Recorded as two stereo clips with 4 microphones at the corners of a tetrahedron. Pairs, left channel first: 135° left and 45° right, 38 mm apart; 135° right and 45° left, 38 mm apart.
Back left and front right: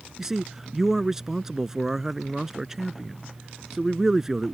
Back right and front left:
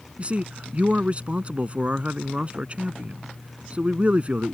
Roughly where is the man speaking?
Ahead left.